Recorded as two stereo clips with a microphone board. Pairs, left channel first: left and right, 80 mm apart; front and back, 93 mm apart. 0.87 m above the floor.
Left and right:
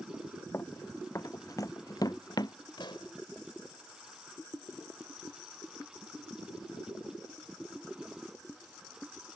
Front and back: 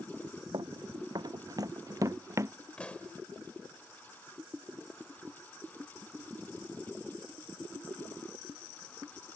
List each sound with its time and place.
0.5 s running footsteps: 150° left; by 2.5 s 120° left
2.8 s a pop: 75° left